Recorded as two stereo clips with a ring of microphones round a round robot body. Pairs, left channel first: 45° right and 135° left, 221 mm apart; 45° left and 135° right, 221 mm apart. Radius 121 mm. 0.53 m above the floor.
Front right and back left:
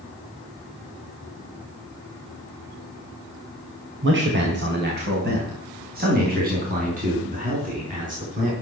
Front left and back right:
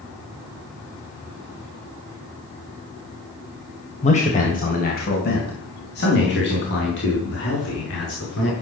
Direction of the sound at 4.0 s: 105° left.